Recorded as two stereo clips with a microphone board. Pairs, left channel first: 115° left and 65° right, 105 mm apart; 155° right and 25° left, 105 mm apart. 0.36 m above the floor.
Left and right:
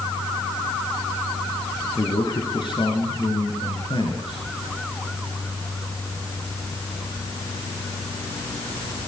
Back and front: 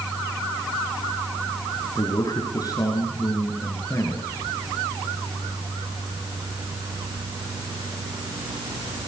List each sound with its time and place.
1.9 s a man speaking: 155° left, 5.5 m; by 4.5 s 140° left, 6 m